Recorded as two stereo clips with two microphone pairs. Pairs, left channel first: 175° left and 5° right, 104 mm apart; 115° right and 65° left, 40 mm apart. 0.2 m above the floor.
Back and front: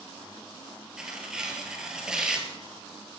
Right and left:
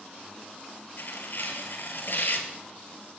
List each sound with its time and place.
1.0 s tearing paper: 90° right, 1.9 m